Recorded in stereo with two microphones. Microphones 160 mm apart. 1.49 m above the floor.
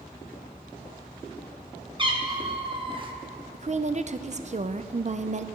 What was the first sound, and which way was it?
A cat meowing, 30° right (ahead or behind).